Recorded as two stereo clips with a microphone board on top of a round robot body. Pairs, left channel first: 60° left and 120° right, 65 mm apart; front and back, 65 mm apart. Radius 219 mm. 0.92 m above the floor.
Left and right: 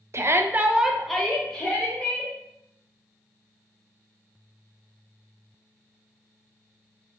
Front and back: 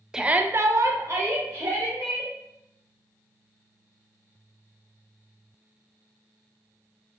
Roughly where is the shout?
Right.